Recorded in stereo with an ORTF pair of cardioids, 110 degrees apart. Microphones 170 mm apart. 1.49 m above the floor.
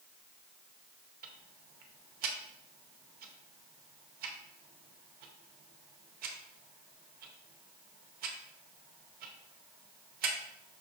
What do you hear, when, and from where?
1.2 s ticking: 70° right, 0.8 m